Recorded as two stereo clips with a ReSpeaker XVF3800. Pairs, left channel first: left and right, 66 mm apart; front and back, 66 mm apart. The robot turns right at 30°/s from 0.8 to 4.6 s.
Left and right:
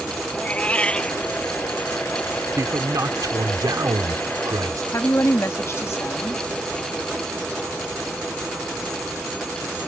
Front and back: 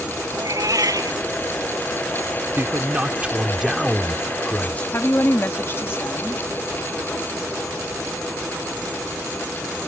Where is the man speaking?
125° right; by 4.8 s 65° right.